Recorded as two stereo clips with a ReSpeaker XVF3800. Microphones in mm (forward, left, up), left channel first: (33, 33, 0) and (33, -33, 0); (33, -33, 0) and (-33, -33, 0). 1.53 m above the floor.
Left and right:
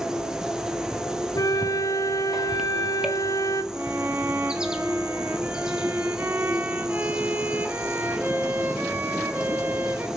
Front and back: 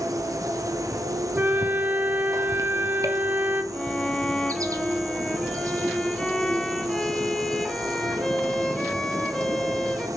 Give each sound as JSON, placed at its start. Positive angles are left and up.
{"t": 0.0, "sound": "an insect", "azimuth_deg": -170, "distance_m": 1.3}
{"t": 1.3, "sound": "a flute", "azimuth_deg": 120, "distance_m": 1.0}
{"t": 3.7, "sound": "a violin", "azimuth_deg": -75, "distance_m": 1.1}